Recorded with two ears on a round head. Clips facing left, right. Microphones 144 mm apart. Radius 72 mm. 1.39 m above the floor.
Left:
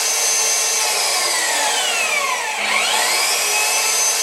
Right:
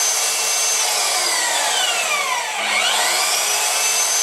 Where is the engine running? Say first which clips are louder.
Left 1 dB; 15° left (ahead or behind), 1.2 m.